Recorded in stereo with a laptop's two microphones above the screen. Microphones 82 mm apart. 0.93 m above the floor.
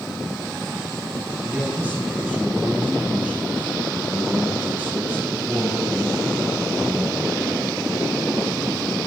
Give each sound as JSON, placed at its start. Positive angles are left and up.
{"t": 1.4, "sound": "a man speaking", "side_deg": -20, "distance_m": 7.5}